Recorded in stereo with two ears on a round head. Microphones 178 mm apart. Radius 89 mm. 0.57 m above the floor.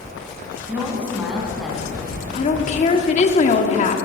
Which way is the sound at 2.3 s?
35° left (ahead or behind).